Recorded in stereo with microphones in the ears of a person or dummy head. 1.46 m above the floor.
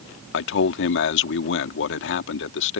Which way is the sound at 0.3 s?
70° left (ahead or behind).